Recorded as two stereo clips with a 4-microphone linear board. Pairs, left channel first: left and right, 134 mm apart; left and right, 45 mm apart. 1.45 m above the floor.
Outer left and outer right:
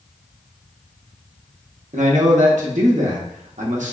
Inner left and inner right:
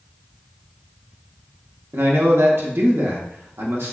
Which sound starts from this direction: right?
A man speaking, at 1.9 s.